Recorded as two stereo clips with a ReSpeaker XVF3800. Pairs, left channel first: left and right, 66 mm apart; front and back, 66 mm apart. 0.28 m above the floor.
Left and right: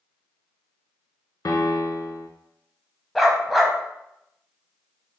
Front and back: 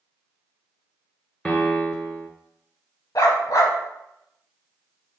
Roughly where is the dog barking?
Ahead.